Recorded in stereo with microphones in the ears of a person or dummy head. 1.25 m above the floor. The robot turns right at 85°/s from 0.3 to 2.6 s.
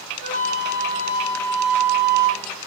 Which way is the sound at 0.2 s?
80° left.